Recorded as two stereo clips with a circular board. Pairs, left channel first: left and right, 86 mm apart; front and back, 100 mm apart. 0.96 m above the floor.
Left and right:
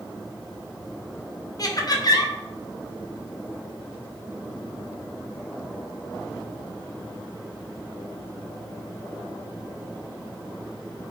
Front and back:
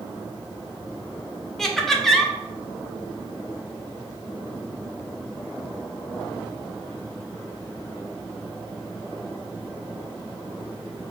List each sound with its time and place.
1.6 s laughter: 85° left, 0.6 m